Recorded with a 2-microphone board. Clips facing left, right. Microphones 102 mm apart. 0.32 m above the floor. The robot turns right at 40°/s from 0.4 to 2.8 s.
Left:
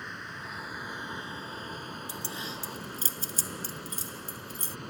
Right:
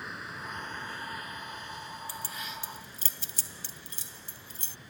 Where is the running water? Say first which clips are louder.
Even; 5° right; by 4.9 s 90° left.